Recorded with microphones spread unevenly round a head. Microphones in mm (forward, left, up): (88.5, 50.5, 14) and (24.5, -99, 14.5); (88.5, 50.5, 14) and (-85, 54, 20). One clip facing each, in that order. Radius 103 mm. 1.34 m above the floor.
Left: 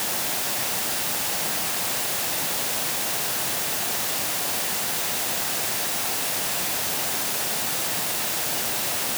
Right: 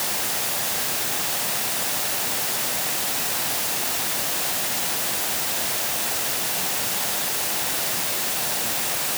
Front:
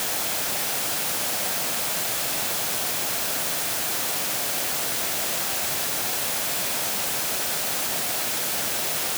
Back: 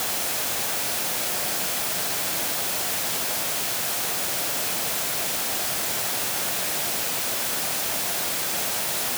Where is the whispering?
No whispering in this recording.